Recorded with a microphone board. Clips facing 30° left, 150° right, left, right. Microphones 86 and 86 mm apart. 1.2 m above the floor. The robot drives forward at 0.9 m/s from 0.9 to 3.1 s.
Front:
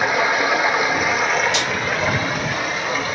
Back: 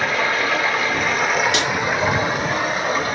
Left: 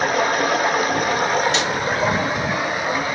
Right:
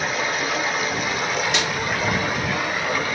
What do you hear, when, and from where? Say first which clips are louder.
0.0 s running water: front 2 dB, left 6 dB; 100° left, 1.1 m; by 3.1 s 160° left, 2.5 m
1.5 s a snare drum: back 1 dB, left 3 dB; 175° right, 3.5 m